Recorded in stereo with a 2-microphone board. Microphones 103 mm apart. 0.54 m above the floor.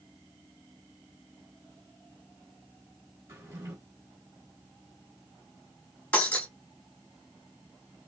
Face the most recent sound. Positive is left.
turn(degrees=15)  # may be behind; listen again after turning